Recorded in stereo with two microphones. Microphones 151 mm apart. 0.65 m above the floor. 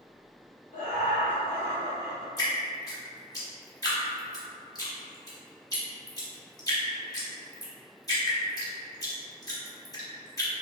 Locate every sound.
0.7 s laughter: 60° left (ahead or behind), 1.3 m
2.4 s dripping: 25° left (ahead or behind), 0.8 m